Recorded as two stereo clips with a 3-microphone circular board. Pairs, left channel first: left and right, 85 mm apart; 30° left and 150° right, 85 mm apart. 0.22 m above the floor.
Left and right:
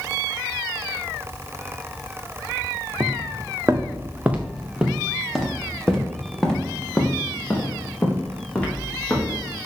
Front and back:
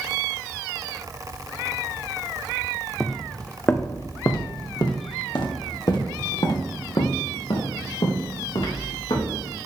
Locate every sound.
3.0 s footsteps: 55° right, 1.3 m; by 9.5 s 20° left, 5.5 m